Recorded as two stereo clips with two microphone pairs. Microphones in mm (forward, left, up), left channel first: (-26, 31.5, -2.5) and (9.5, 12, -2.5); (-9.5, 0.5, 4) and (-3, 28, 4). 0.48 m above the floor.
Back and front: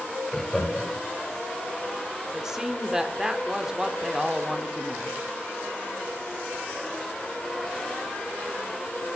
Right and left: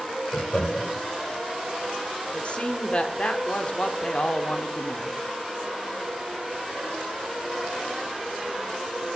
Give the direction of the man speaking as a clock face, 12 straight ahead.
3 o'clock.